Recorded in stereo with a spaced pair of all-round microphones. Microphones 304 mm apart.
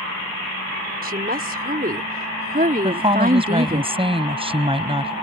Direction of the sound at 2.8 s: 15° right (ahead or behind).